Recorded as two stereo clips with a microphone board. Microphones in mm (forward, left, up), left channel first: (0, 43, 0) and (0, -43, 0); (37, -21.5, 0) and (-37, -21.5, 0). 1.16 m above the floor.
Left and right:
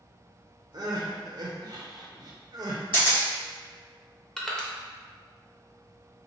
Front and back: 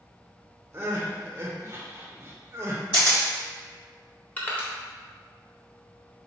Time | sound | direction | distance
0.7 | crying | 125° right | 0.7 m
2.9 | a camera shutter | 25° left | 1.2 m
4.4 | crushing | 10° left | 0.9 m